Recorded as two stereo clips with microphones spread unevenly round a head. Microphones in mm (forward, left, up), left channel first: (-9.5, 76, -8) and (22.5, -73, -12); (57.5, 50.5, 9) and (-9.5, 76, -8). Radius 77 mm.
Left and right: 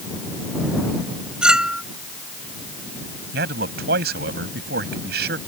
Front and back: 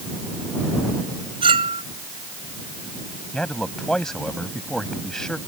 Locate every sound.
1.4 s a clink: 165° right
3.3 s a man speaking: 105° right